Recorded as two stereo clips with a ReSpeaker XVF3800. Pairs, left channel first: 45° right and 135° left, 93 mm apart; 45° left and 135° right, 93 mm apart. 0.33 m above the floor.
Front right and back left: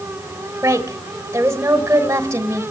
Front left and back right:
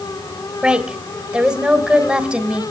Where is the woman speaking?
155° left, 1.7 m.